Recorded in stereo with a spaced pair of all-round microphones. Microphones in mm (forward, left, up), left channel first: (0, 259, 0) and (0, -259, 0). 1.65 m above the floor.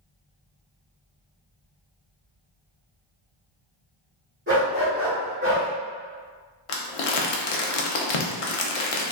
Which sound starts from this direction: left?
Crumpling, at 6.7 s.